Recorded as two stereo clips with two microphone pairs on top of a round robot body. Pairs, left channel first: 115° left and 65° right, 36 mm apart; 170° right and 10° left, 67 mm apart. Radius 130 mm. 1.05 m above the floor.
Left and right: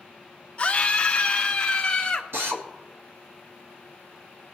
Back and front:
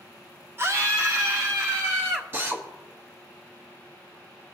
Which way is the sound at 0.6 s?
60° left.